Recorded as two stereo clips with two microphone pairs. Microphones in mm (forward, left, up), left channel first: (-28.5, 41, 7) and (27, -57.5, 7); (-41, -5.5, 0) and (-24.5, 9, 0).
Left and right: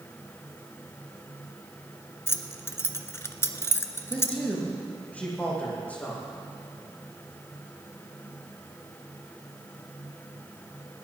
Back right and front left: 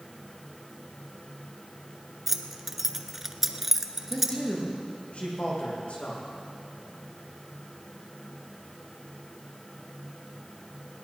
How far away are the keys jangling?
About 0.9 m.